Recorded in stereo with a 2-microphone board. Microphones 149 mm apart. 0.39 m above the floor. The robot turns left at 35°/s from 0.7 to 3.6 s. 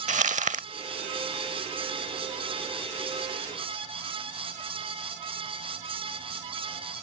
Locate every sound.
0.1 s crumpling: 60° right (ahead or behind)